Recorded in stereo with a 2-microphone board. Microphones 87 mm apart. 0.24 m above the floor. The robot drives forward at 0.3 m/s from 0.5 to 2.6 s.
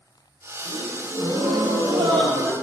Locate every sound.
0.6 s a gasp: 75° right (ahead or behind), 5.5 m